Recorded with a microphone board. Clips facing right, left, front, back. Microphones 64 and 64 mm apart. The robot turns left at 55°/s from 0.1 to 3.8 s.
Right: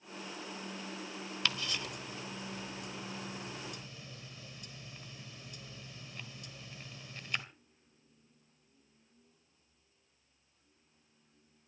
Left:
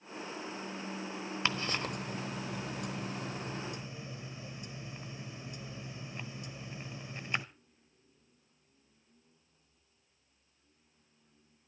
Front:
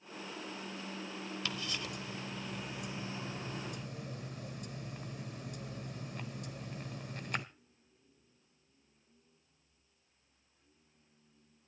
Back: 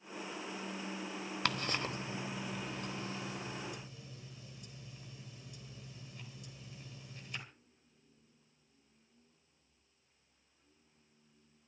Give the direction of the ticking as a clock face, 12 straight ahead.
7 o'clock.